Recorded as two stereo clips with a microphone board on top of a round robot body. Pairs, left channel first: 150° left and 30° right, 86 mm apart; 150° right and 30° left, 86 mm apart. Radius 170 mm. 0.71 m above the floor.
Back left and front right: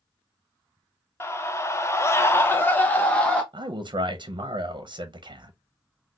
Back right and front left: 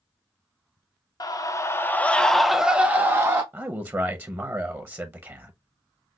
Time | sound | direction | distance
1.2 | a scream | 160° right | 1.0 m
3.5 | a man speaking | 25° right | 0.7 m